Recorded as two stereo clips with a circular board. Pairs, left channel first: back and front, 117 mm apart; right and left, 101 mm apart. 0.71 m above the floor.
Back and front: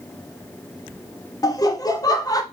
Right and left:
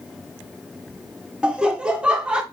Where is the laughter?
165° left, 0.5 m.